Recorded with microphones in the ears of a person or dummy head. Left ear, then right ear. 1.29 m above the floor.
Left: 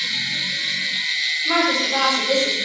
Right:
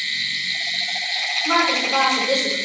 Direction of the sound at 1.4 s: 70° right (ahead or behind).